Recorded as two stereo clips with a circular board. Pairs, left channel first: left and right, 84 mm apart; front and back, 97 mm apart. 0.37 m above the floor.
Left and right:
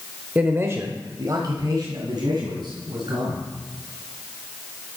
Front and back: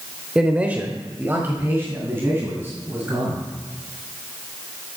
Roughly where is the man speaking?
Behind right.